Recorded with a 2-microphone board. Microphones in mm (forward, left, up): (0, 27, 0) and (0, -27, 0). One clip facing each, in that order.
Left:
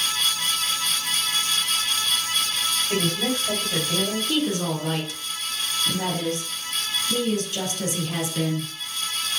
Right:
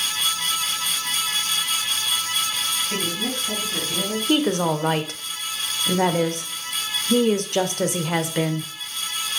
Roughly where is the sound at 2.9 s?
Left.